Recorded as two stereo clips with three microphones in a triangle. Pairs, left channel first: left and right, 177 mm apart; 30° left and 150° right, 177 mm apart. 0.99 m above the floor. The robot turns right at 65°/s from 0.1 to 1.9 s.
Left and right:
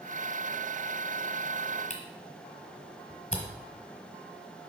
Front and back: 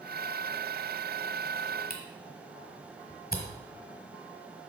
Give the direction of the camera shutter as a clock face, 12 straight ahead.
10 o'clock.